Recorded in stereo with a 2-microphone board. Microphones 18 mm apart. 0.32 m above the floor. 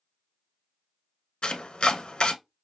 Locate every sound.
1.4 s chopping: 75° left (ahead or behind), 0.5 m